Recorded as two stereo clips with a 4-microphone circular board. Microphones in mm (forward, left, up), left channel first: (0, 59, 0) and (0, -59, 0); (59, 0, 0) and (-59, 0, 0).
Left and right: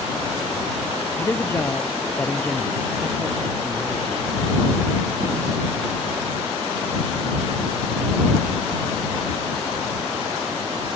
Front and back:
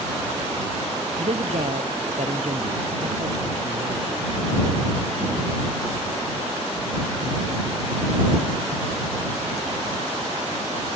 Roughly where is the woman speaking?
Behind left.